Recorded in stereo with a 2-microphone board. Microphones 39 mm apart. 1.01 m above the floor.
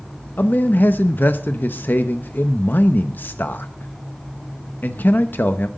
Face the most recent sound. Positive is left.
turn(degrees=55)  # may be behind; listen again after turning